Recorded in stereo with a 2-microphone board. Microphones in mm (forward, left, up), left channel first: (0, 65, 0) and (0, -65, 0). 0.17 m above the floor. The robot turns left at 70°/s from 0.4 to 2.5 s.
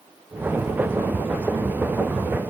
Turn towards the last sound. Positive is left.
No sound to turn to.